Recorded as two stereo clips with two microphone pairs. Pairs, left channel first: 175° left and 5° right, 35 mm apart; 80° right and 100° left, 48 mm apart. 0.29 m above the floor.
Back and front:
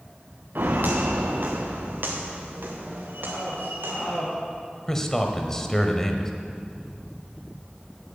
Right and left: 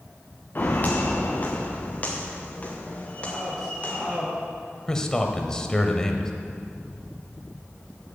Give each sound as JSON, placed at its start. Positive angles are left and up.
{"t": 0.6, "sound": "footsteps", "azimuth_deg": -25, "distance_m": 1.5}
{"t": 3.2, "sound": "a man speaking", "azimuth_deg": -170, "distance_m": 5.0}
{"t": 4.9, "sound": "a man speaking", "azimuth_deg": -130, "distance_m": 1.0}